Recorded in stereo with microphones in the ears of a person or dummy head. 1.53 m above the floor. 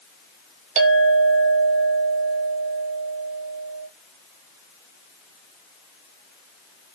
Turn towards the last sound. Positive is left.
turn(degrees=-35)  # may be behind; listen again after turning